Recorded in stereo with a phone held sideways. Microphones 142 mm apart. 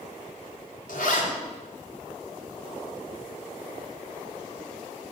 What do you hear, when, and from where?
0.9 s a zipper: 75° left (ahead or behind), 4 m